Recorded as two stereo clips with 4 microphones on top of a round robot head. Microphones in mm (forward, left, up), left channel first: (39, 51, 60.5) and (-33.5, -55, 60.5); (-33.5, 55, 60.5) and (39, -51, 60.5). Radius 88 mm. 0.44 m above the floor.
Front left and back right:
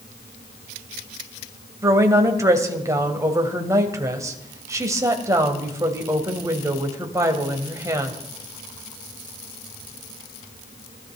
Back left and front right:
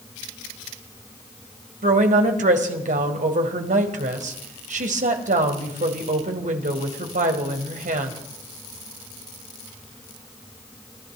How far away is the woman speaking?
About 2.5 m.